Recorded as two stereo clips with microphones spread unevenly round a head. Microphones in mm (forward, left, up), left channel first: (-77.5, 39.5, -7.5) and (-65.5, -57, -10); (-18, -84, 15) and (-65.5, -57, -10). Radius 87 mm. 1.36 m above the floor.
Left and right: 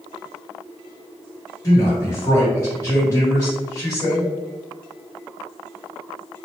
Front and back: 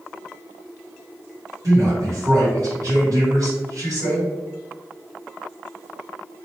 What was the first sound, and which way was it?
A man speaking, 155° left.